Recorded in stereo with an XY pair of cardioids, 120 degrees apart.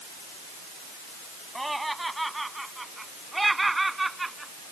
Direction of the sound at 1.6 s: 5° right.